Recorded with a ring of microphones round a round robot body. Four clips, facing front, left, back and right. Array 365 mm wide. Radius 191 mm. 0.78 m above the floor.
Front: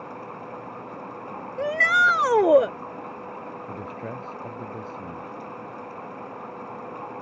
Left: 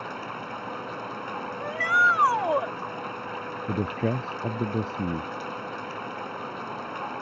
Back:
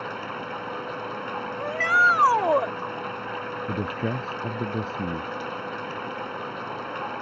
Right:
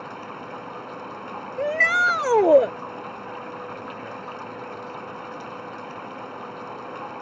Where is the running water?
175° left.